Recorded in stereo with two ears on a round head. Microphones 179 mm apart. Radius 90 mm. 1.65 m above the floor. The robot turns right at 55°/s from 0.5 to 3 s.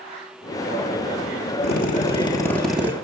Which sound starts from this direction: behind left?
A drill, at 1.6 s.